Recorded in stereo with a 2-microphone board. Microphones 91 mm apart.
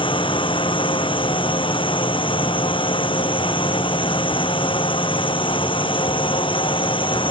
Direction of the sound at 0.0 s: 80° left.